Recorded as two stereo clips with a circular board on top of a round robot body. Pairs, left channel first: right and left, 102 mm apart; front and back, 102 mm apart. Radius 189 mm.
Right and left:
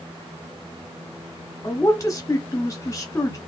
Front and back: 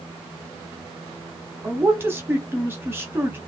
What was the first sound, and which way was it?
A man speaking, 125° right.